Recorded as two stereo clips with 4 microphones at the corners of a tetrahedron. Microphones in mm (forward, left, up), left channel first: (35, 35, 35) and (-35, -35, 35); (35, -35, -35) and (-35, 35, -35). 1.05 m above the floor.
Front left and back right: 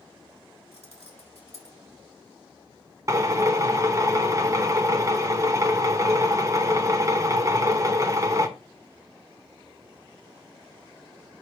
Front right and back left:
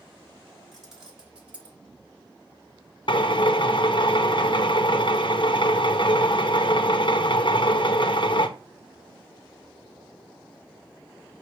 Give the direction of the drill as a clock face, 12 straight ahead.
3 o'clock.